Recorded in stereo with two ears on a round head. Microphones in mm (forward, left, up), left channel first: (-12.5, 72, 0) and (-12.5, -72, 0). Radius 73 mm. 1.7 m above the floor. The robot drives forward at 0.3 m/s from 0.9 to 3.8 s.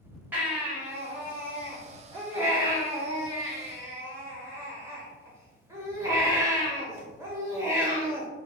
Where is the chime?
I don't hear a chime.